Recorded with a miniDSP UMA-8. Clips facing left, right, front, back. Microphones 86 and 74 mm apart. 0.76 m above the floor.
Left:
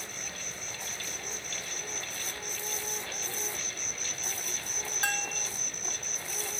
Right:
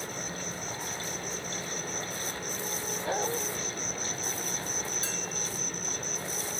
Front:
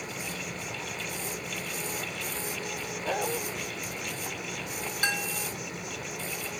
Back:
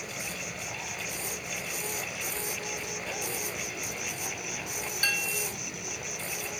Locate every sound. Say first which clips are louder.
0.0 s an insect: right 6 dB, front 1 dB; 55° right
3.0 s a dog barking: right 10 dB, front 10 dB; 50° right
5.0 s a bell: left 3 dB, front 2 dB; 65° left